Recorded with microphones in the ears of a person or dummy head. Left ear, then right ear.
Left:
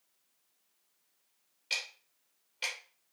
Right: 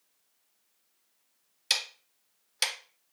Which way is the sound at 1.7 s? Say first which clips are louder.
Right 6 dB; 65° right (ahead or behind).